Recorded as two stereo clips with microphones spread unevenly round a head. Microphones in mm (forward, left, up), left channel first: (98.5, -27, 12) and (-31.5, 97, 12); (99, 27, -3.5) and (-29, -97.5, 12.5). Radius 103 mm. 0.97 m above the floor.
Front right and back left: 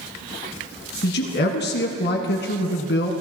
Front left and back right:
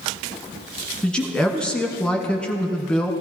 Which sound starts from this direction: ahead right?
A man speaking, at 1.0 s.